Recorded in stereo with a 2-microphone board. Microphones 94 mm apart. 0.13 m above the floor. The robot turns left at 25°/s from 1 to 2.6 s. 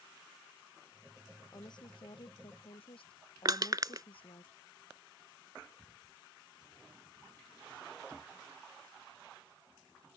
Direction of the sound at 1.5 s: 45° left (ahead or behind).